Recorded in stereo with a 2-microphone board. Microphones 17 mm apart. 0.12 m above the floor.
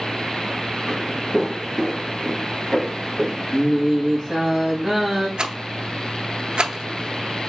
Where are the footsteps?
25° right (ahead or behind), 3.5 m; by 3.4 s centre (ahead or behind), 3.5 m.